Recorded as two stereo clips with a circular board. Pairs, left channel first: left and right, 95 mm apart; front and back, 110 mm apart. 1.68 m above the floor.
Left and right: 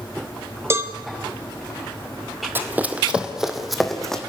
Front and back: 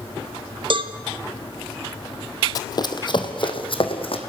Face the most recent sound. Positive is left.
turn(degrees=5)